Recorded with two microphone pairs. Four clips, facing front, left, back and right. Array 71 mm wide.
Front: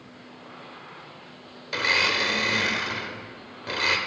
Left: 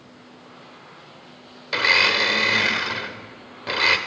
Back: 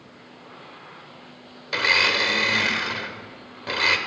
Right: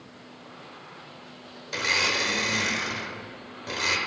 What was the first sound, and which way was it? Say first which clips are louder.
A blender: left 7 dB, back 3 dB; 110° left.